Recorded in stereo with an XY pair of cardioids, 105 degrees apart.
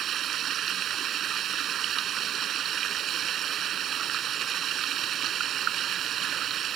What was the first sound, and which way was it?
Running water, 65° right.